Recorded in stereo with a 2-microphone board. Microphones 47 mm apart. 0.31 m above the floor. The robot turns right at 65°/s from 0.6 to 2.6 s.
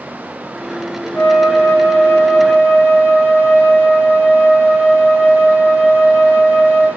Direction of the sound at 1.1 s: 55° left.